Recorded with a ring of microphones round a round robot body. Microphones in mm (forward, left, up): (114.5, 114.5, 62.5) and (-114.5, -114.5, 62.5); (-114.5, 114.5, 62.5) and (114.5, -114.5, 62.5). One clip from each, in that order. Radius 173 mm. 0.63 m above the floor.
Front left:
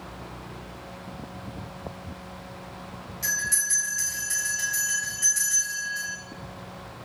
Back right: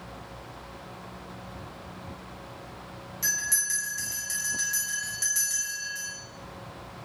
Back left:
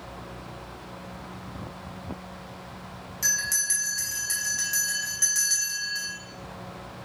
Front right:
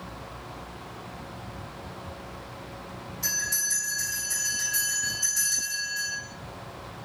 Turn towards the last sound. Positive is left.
turn(degrees=155)